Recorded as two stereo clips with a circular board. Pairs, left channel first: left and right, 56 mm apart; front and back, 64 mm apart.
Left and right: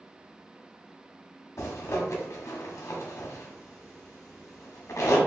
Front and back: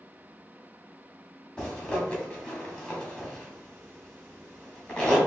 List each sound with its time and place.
1.6 s a zipper: 75° left, 1.2 m